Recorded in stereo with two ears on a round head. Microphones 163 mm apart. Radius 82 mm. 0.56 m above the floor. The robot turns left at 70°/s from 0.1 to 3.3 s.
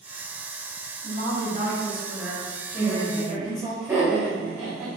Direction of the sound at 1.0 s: 70° right.